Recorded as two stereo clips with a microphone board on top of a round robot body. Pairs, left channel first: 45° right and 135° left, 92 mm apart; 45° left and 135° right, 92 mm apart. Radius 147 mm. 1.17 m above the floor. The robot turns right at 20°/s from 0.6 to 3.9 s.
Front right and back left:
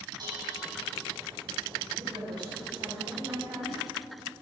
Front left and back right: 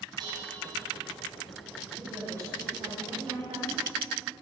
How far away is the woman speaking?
About 8 m.